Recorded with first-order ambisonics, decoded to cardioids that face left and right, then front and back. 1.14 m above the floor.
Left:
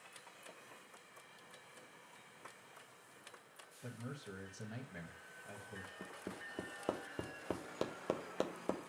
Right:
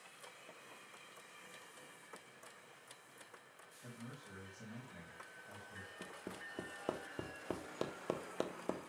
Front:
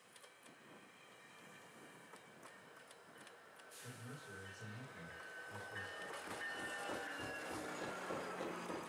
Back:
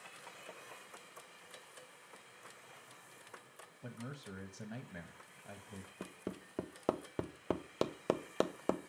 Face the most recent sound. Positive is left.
turn(degrees=175)